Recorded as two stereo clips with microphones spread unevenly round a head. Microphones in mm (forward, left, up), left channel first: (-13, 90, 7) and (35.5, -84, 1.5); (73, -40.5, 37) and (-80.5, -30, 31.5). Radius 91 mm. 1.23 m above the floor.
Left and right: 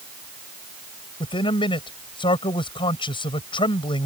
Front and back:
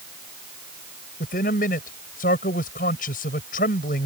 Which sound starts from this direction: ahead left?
A man speaking, at 1.2 s.